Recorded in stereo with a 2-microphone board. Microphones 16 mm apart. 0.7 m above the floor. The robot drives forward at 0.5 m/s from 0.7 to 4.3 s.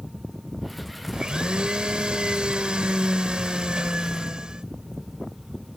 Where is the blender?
70° right (ahead or behind); by 4.7 s 65° right (ahead or behind).